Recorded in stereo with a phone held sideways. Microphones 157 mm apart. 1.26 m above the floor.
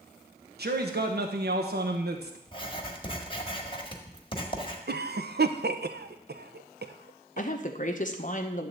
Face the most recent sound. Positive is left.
turn(degrees=50)  # may be behind; listen again after turning